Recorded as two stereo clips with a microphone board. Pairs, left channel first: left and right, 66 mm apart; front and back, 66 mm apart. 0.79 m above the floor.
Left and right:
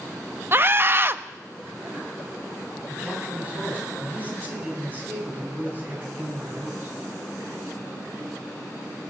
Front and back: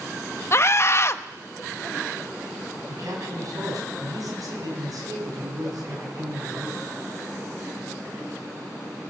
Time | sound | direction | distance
0.5 | a scream | 40° right | 0.6 m
2.9 | a man speaking | 155° right | 6 m